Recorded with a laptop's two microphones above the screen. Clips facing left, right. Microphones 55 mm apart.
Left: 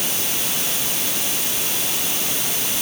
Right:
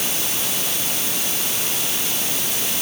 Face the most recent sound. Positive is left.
No sound to turn to.